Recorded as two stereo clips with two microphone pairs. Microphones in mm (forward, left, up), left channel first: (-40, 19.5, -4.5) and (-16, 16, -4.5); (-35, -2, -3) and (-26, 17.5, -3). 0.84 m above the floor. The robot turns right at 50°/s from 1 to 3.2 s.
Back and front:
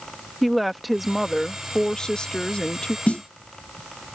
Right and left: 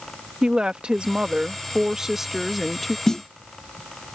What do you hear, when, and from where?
0.4 s a woman speaking: 75° left; by 3.0 s 175° left
3.1 s a snare drum: straight behind; by 3.2 s 175° right